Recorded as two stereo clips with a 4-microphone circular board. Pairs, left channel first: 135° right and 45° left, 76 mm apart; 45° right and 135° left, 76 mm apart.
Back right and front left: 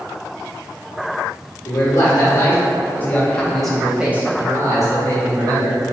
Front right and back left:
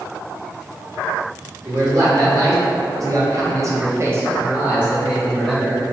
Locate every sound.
1.6 s a man speaking: straight behind, 1.4 m; by 5.8 s 40° left, 1.1 m